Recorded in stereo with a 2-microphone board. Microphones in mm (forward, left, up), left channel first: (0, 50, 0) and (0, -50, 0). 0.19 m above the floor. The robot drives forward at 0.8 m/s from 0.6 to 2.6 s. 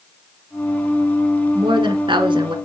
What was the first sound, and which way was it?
A woman speaking, 55° right (ahead or behind).